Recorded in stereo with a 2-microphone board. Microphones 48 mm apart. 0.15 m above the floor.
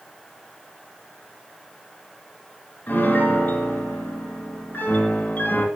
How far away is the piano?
About 2.5 m.